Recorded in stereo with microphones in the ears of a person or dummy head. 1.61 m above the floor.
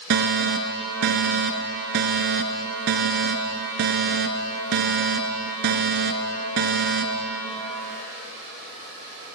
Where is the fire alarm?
60° right (ahead or behind), 1.5 m.